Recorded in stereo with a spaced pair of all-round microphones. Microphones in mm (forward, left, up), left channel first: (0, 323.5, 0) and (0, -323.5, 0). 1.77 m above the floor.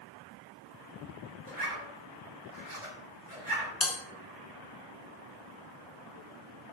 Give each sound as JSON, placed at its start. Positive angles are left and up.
{"t": 1.5, "sound": "a zipper", "side_deg": -50, "distance_m": 2.0}
{"t": 3.8, "sound": "a bell", "side_deg": 45, "distance_m": 1.3}